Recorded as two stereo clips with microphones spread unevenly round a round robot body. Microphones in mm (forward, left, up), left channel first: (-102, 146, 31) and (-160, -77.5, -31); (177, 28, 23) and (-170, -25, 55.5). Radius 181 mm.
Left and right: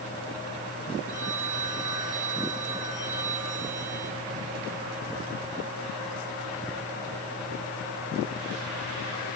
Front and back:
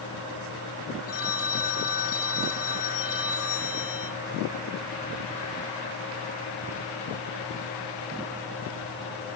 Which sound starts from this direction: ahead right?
A phone ringing, at 1.1 s.